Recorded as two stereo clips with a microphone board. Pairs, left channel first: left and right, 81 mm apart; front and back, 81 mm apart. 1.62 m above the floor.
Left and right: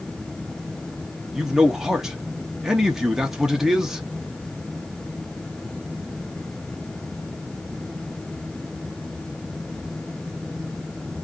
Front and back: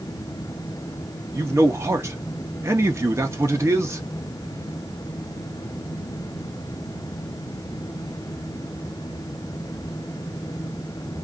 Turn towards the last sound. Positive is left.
turn(degrees=-170)